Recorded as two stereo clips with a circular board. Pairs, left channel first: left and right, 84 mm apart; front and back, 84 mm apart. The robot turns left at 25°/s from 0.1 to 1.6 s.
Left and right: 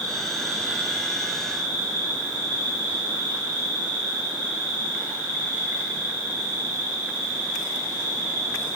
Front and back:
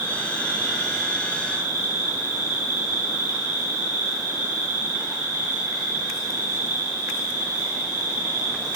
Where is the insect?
110° right, 2.5 m; by 8.8 s 150° right, 2.5 m.